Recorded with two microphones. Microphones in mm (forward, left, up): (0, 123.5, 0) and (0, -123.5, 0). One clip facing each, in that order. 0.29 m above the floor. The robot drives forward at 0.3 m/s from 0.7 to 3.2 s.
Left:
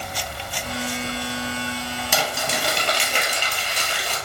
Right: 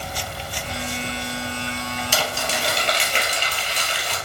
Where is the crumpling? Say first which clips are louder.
Left 2 dB; 70° left (ahead or behind), 1.0 m; by 4.2 s 55° left (ahead or behind), 1.2 m.